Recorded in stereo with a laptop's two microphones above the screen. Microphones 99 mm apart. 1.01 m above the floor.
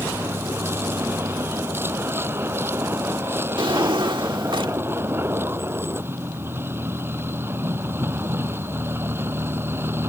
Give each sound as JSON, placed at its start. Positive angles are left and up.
{"t": 0.0, "sound": "a vehicle", "side_deg": -25}
{"t": 3.6, "sound": "a drawer", "side_deg": -55}